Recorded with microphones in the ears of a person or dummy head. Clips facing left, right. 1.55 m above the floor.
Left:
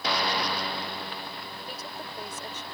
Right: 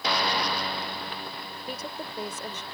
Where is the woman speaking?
75° right (ahead or behind).